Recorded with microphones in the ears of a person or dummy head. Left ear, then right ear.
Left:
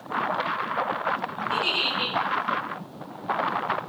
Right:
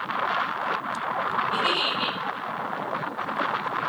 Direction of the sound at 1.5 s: 55° left (ahead or behind).